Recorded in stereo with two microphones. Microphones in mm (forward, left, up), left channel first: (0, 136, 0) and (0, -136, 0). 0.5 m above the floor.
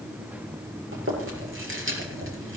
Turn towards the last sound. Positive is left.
turn(degrees=-50)  # may be behind; listen again after turning